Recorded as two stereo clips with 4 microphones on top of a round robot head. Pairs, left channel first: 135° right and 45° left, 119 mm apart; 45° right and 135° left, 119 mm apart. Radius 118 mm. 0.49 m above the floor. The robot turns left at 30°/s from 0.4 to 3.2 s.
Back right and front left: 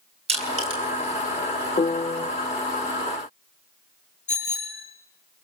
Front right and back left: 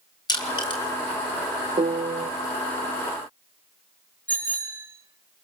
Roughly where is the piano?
Behind.